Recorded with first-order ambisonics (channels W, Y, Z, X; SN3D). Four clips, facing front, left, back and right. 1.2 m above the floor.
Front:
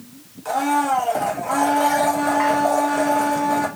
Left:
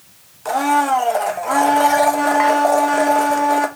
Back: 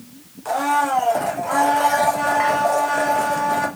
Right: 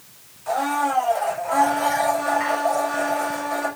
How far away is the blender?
About 0.5 m.